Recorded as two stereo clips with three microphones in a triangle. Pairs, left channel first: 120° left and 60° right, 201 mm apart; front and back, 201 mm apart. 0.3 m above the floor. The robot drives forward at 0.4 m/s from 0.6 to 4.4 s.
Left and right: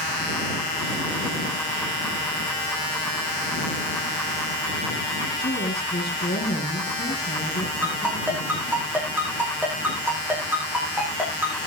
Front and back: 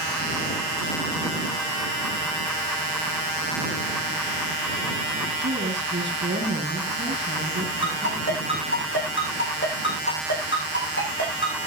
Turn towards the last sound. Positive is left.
turn(degrees=20)